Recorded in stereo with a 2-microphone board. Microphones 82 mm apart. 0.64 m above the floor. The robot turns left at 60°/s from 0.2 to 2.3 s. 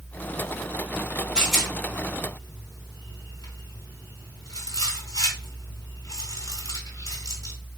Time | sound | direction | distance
1.4 | a rattle | 10° right (ahead or behind) | 3 m